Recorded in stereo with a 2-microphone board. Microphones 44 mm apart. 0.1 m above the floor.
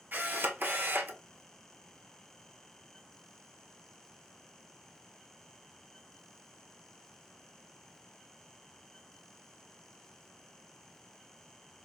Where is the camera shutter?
45° right (ahead or behind), 0.7 m.